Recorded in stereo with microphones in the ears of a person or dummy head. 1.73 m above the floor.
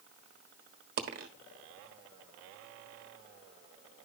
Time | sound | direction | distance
1.0 | a dropped coin | 35° right (ahead or behind) | 1.3 m